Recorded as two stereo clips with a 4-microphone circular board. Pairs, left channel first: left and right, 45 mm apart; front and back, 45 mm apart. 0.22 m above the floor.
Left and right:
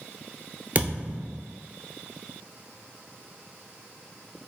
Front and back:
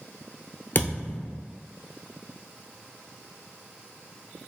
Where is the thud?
35° right, 0.8 m.